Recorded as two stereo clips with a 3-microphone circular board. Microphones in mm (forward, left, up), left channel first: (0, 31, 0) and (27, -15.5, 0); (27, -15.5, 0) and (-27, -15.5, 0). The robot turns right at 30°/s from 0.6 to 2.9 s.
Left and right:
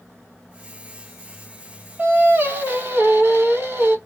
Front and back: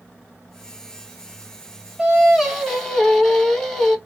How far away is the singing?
About 1.3 m.